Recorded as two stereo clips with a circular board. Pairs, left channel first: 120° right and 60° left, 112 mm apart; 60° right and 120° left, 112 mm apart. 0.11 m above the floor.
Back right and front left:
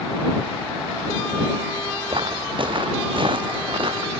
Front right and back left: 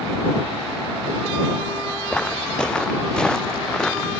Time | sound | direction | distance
2.1 | footsteps | 20° left | ?